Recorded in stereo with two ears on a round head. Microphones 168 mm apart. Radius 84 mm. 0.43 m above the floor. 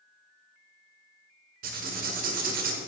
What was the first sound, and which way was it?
Writing, 50° right (ahead or behind).